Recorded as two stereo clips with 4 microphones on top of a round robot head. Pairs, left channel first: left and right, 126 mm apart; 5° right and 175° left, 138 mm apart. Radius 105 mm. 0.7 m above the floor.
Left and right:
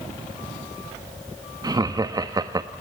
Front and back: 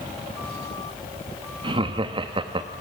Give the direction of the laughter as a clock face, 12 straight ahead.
5 o'clock.